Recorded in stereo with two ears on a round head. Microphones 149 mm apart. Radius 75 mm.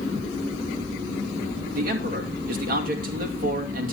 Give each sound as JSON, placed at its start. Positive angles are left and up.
{"t": 1.7, "sound": "a man speaking", "side_deg": -55, "distance_m": 2.0}